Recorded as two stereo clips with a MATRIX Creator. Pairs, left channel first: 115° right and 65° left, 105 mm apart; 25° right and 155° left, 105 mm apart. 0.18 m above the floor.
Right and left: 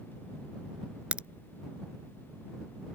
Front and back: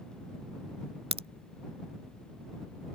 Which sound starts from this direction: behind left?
A crack, at 1.1 s.